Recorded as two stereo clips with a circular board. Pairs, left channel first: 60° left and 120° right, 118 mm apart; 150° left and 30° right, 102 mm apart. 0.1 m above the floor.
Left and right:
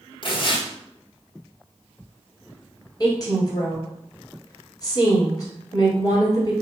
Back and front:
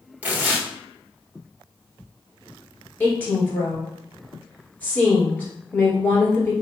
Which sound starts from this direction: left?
A woman speaking, at 3.0 s.